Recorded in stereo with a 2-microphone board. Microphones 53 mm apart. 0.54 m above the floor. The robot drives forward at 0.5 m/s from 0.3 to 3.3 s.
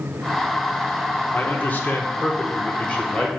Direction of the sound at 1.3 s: 40° left (ahead or behind).